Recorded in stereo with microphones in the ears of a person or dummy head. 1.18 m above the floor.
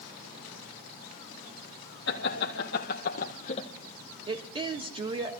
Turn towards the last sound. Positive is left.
turn(degrees=-30)  # may be behind; listen again after turning